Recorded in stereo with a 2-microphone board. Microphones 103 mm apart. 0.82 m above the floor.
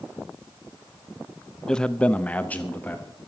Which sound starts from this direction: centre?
A man speaking, at 1.7 s.